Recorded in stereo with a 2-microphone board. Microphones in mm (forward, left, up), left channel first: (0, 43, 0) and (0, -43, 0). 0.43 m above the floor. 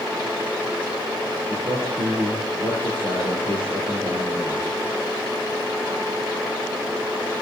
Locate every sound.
1.5 s a man speaking: 70° right (ahead or behind), 7.5 m